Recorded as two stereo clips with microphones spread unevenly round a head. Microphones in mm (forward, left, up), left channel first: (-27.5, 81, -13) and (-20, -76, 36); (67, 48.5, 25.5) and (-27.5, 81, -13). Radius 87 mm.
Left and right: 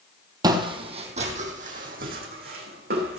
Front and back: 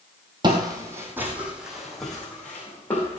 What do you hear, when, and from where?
0.4 s footsteps: 125° right, 1.4 m; by 3.2 s 85° right, 3 m